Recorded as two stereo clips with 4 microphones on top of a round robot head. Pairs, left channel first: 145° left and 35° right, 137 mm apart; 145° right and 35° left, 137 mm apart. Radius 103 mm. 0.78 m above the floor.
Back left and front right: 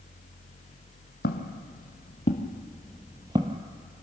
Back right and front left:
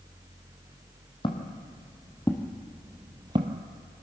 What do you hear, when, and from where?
1.2 s footsteps: 160° left, 1.5 m; by 3.6 s 5° right, 0.9 m